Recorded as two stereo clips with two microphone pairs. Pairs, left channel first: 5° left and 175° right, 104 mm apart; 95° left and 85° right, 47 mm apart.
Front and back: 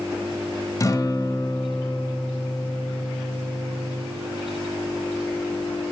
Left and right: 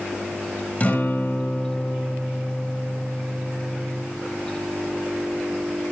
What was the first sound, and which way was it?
A guitar, 50° left.